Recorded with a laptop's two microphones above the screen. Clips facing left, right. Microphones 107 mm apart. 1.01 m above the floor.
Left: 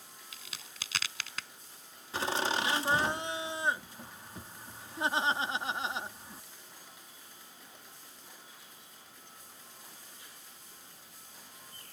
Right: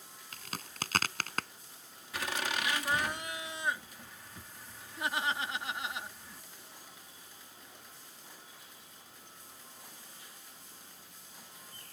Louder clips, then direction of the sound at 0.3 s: Right 9 dB; 50° right (ahead or behind).